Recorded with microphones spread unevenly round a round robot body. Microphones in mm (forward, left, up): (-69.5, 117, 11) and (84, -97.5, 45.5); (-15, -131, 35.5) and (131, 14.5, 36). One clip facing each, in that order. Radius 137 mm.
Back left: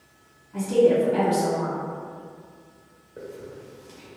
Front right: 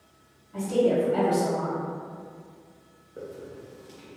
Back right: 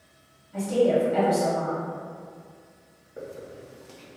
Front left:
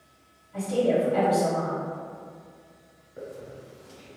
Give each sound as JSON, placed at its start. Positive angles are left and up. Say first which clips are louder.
{"t": 0.5, "sound": "a woman speaking", "louder": "back left 4 dB, back right 2 dB", "azimuth_deg": -175, "distance_m": 1.7}
{"t": 3.2, "sound": "a hiss", "louder": "back left 1 dB, back right 1 dB", "azimuth_deg": -150, "distance_m": 1.1}